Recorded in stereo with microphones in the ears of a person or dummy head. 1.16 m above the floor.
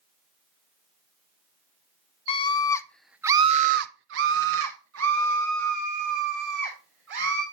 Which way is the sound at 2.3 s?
25° left (ahead or behind).